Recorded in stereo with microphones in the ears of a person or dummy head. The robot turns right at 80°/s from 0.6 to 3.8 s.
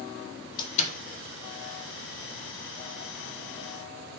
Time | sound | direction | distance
0.6 | a door slam | 30° left (ahead or behind) | 1.5 m